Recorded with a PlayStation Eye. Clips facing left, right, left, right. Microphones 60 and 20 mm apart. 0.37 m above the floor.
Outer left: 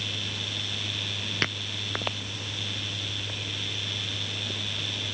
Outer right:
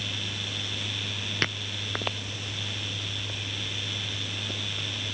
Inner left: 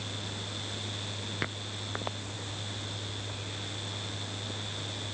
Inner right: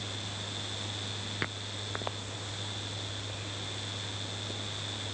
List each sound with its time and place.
Only background noise.